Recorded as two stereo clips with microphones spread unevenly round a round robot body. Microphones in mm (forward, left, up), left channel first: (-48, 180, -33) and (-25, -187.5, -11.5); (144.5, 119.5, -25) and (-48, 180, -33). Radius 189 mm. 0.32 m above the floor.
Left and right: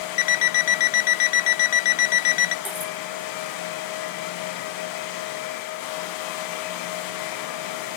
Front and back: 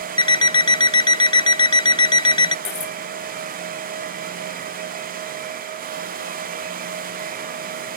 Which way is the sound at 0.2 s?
50° left.